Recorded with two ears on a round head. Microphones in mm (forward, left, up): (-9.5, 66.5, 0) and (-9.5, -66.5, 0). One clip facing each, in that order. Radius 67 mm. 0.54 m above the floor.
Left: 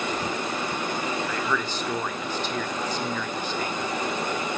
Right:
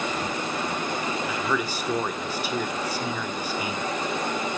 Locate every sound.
1.2 s a man speaking: 10° right (ahead or behind), 1.4 m